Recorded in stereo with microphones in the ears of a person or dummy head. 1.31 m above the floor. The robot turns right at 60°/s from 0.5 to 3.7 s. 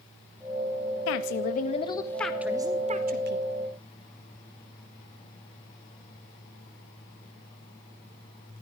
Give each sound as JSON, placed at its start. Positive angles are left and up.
{"t": 1.1, "sound": "a woman speaking", "azimuth_deg": 100, "distance_m": 1.8}